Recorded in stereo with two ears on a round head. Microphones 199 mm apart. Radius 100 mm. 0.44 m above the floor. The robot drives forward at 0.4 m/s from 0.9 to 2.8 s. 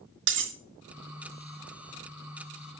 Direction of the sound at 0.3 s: 55° right (ahead or behind).